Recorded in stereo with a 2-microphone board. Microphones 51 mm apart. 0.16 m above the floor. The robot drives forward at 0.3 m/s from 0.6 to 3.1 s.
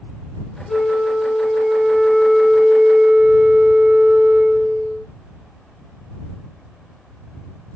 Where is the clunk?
I don't hear a clunk.